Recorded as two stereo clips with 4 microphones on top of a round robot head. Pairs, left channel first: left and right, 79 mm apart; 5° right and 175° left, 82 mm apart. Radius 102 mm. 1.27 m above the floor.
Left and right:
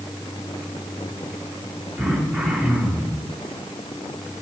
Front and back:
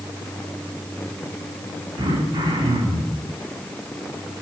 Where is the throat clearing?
175° right, 7.5 m.